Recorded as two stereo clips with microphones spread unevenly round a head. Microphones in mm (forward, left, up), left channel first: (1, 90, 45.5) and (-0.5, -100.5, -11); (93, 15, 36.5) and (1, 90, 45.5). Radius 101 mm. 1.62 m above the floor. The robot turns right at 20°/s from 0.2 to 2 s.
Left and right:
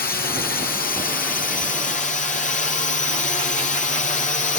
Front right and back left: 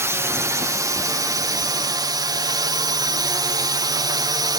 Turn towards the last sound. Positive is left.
turn(degrees=130)